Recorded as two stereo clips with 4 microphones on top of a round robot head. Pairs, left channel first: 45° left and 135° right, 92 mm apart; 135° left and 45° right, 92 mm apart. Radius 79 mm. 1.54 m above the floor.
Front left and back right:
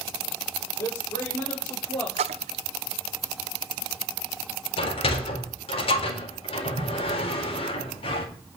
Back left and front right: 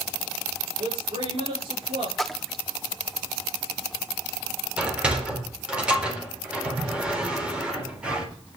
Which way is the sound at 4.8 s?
30° left.